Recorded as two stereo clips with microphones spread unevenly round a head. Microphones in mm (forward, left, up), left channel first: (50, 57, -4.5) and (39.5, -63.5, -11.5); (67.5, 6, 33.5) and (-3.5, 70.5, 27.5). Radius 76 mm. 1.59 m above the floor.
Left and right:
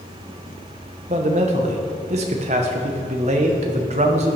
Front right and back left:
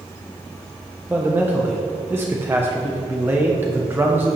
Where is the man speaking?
145° right, 1.0 m.